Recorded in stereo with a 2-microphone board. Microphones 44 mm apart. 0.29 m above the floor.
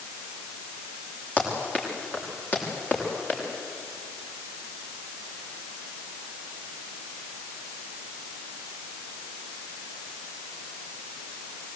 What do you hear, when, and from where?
1.4 s running footsteps: 40° left (ahead or behind), 7 m